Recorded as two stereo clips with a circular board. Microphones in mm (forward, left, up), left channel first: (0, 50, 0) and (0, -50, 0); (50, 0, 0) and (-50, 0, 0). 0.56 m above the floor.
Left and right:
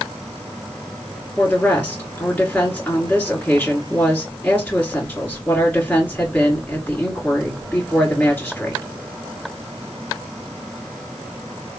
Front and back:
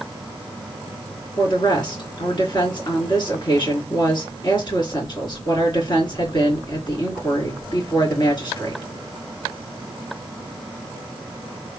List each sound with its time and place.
1.4 s a woman speaking: 20° left, 1.9 m